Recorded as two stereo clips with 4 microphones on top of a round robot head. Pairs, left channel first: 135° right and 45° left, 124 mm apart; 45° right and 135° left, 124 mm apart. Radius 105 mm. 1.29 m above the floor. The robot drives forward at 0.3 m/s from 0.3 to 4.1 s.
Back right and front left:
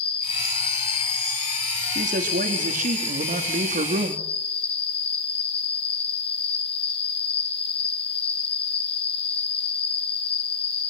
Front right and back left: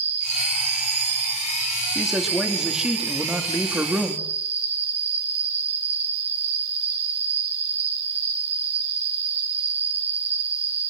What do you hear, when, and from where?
0.0 s an insect: 175° left, 2.5 m
1.9 s a man speaking: 45° left, 3.5 m; by 4.3 s 55° left, 3 m